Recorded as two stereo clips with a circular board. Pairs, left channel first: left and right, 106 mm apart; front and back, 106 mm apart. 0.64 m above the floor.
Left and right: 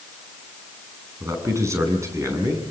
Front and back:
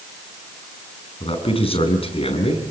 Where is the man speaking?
30° right, 6.5 m.